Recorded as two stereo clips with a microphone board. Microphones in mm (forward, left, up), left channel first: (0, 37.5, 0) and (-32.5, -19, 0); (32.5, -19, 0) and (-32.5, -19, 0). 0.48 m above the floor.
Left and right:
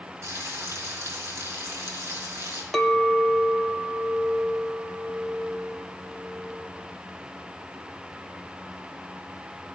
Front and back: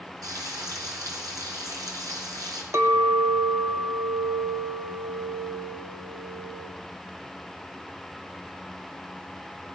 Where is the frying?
160° right, 4 m.